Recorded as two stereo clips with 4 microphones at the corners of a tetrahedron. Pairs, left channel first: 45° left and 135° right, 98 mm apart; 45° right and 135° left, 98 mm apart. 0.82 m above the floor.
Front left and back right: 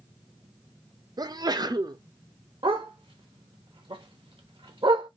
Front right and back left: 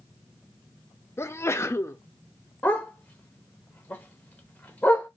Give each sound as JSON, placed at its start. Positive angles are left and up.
{"t": 1.2, "sound": "a sneeze", "azimuth_deg": -100, "distance_m": 0.5}
{"t": 2.6, "sound": "a dog barking", "azimuth_deg": -115, "distance_m": 0.8}